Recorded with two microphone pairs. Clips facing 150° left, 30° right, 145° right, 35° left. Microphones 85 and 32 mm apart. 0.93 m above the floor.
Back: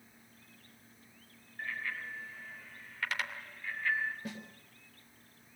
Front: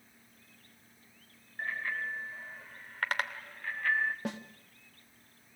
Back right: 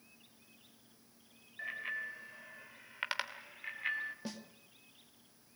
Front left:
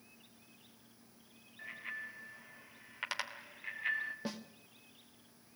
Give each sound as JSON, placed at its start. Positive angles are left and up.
{"t": 1.6, "sound": "a bicycle bell", "azimuth_deg": -85, "distance_m": 3.0}
{"t": 4.2, "sound": "a snare drum", "azimuth_deg": -35, "distance_m": 1.7}